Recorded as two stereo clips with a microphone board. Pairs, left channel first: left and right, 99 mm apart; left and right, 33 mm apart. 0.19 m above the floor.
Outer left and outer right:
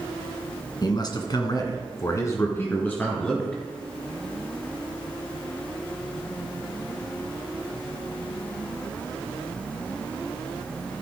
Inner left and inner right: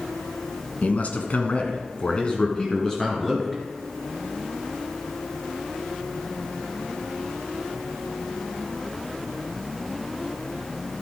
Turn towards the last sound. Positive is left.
turn(degrees=10)  # may be behind; listen again after turning